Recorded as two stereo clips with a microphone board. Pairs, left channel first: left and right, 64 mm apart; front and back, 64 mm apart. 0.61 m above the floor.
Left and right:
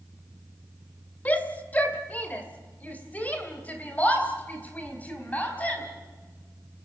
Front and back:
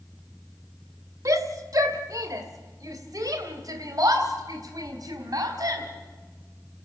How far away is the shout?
About 1.8 m.